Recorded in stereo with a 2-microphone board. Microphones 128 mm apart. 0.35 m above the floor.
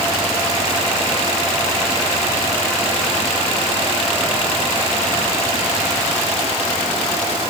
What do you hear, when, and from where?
Only background noise.